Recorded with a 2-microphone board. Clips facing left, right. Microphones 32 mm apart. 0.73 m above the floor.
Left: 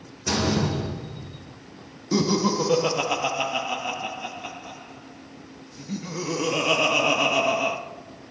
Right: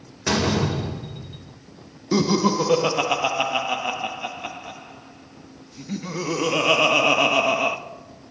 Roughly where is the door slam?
Right.